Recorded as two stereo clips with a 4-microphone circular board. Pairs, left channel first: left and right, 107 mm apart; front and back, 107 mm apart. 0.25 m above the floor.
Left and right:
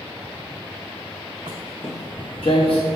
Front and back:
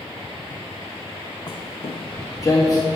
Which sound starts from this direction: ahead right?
Footsteps, at 1.5 s.